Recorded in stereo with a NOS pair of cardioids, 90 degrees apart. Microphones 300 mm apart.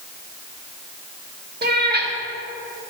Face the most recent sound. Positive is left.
turn(degrees=-35)